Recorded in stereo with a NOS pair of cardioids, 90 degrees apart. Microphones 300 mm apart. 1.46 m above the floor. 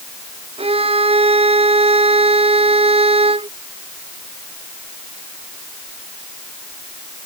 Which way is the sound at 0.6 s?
20° right.